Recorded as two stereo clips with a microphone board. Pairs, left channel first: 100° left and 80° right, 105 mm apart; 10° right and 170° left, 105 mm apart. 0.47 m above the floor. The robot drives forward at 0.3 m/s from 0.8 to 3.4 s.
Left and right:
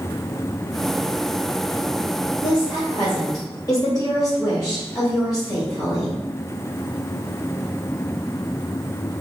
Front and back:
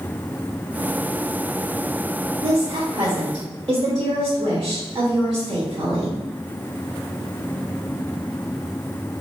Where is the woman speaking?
125° left, 1.3 m; by 6.2 s 140° left, 1.4 m.